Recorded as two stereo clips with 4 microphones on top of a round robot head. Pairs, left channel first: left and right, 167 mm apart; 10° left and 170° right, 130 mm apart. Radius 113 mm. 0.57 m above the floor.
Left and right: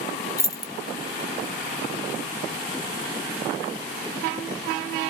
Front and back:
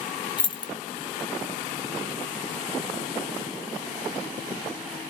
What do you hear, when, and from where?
0.4 s keys jangling: 30° left, 0.6 m